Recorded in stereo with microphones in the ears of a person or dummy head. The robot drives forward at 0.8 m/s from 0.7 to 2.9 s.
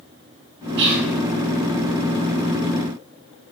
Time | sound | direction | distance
0.8 | whispering | 65° right (ahead or behind) | 1.1 m